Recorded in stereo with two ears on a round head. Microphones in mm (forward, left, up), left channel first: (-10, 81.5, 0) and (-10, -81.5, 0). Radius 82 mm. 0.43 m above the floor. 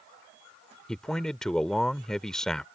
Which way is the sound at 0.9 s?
5° left (ahead or behind).